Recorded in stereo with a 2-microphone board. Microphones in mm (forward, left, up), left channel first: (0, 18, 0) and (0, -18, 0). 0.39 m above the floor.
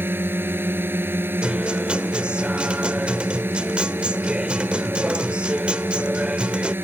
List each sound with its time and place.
0.0 s a drone: 80° right
1.4 s a guitar: 35° right (ahead or behind)